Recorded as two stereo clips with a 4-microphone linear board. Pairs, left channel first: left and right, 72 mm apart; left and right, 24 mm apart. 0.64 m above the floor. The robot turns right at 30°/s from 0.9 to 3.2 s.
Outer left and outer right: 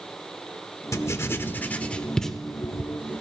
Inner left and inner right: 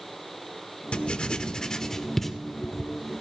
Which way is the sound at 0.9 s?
45° left (ahead or behind).